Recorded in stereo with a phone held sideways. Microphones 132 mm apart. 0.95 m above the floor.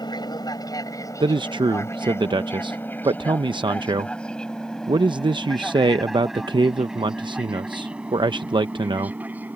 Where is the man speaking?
35° right (ahead or behind).